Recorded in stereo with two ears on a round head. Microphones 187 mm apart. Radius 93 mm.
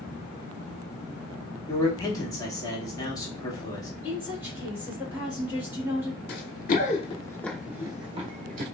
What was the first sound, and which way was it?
A man speaking, 20° left (ahead or behind).